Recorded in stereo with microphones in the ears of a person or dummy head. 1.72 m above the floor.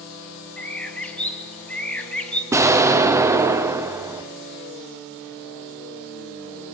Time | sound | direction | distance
0.6 | a bird | 5° left (ahead or behind) | 1.1 m
2.5 | an explosion | 15° right (ahead or behind) | 0.8 m